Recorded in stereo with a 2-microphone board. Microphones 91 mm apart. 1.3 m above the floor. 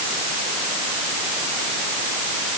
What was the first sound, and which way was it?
Only background noise.